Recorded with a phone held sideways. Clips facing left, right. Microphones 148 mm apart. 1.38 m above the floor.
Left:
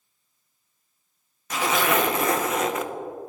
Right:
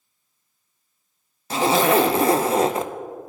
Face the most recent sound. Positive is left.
turn(degrees=-30)  # may be behind; listen again after turning